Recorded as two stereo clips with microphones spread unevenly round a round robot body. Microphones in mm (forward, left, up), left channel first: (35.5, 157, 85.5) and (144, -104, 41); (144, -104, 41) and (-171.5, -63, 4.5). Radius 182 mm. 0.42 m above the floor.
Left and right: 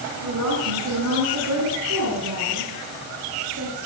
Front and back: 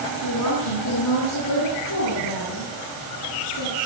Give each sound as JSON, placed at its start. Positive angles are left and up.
{"t": 0.2, "sound": "a woman speaking", "azimuth_deg": -45, "distance_m": 7.0}